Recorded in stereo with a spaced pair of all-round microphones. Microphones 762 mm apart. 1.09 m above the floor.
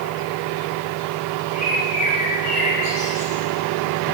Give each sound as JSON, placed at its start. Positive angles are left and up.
{"t": 1.5, "sound": "a bird", "side_deg": -45, "distance_m": 4.0}